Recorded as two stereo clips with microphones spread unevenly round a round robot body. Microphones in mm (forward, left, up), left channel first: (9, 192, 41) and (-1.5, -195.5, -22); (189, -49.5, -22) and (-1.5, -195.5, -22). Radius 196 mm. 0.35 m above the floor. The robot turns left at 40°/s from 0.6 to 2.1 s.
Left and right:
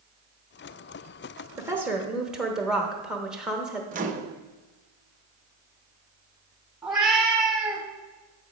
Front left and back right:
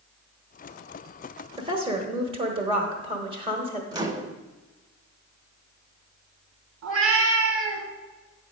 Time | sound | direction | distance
1.6 | a woman speaking | 130° right | 0.9 m
3.9 | a microwave | 85° right | 0.6 m
6.8 | a cat meowing | 175° right | 1.2 m